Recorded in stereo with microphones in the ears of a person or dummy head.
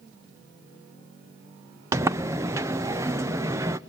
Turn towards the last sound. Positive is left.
turn(degrees=-15)  # may be behind; listen again after turning